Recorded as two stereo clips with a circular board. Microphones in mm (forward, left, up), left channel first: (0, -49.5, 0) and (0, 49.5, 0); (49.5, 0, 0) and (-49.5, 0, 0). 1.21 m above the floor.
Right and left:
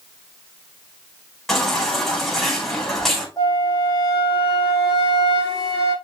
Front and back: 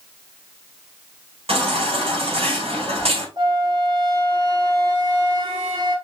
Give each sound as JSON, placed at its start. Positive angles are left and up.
{"t": 1.5, "sound": "a baby crying", "azimuth_deg": -175, "distance_m": 4.5}
{"t": 3.4, "sound": "a flute", "azimuth_deg": -145, "distance_m": 3.5}